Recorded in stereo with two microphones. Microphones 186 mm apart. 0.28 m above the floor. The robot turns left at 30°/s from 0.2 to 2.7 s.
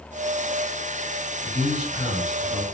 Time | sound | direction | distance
1.4 | a man speaking | 35° right | 2.0 m